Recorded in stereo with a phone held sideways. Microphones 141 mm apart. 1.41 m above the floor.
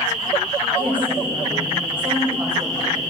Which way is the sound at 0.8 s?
35° right (ahead or behind).